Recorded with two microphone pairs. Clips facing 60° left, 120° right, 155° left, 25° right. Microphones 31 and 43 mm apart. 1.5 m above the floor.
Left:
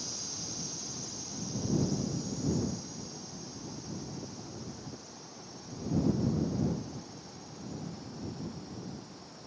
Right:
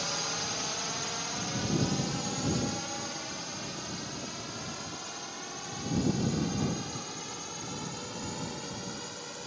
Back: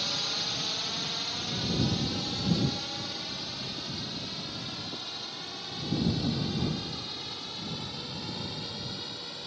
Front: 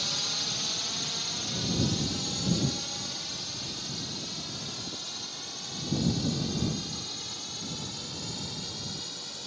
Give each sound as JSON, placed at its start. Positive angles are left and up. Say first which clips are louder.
{"t": 0.0, "sound": "a drone", "louder": "right 9 dB, back 1 dB", "azimuth_deg": -125}